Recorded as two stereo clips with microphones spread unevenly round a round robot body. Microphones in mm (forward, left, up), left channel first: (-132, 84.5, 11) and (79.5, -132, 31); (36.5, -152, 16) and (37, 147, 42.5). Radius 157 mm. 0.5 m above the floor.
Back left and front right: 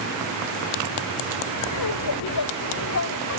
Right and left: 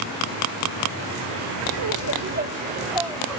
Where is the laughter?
120° left; by 3.4 s straight behind.